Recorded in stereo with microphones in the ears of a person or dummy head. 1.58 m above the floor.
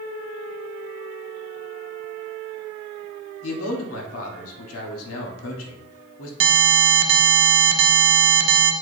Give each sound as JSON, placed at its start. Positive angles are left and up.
{"t": 3.4, "sound": "a man speaking", "side_deg": 85, "distance_m": 1.0}
{"t": 6.4, "sound": "an alarm", "side_deg": -45, "distance_m": 0.5}